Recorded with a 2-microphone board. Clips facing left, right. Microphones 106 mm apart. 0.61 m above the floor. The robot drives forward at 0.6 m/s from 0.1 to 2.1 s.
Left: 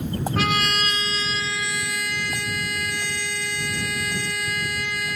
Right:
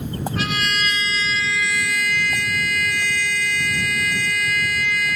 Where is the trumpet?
45° left (ahead or behind); by 5.2 s 25° left (ahead or behind).